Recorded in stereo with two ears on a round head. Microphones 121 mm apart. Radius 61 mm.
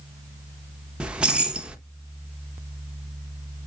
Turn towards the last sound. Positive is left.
turn(degrees=-10)  # may be behind; listen again after turning